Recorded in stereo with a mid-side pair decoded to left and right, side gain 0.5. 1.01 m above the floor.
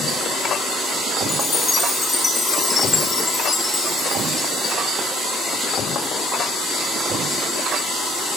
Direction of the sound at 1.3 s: 30° left.